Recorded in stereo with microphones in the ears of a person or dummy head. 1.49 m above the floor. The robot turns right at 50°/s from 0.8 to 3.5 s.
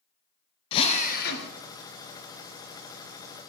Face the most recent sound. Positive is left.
turn(degrees=170)